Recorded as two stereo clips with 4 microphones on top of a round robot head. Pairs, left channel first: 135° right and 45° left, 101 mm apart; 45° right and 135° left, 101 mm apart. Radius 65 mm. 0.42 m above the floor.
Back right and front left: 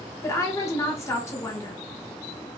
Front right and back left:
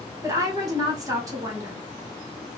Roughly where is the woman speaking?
Behind.